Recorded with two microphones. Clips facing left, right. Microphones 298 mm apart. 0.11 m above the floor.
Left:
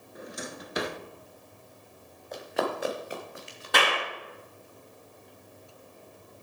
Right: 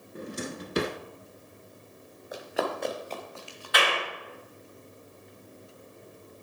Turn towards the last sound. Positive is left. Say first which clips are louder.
# left 1 dB
turn(degrees=55)  # may be behind; listen again after turning